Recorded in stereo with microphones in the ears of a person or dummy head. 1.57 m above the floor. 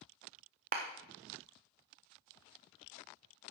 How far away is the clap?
About 0.6 m.